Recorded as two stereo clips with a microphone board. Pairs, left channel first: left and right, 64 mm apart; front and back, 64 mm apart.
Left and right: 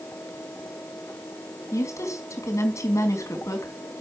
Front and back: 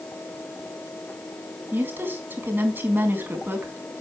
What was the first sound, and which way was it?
A woman speaking, 125° left.